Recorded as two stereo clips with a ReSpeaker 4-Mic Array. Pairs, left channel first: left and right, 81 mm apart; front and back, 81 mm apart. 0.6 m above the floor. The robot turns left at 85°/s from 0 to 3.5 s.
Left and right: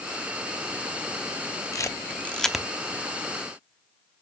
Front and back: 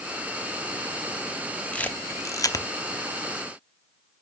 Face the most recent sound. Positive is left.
turn(degrees=-80)